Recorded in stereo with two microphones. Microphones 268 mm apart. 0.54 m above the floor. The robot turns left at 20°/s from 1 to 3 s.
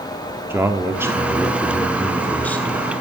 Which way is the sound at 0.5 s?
10° right (ahead or behind).